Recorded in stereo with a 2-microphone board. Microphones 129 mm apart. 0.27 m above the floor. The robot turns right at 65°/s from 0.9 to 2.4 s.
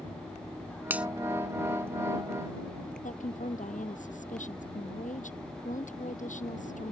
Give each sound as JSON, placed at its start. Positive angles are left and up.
{"t": 0.9, "sound": "a finger snap", "side_deg": -15}
{"t": 3.0, "sound": "a woman speaking", "side_deg": 75}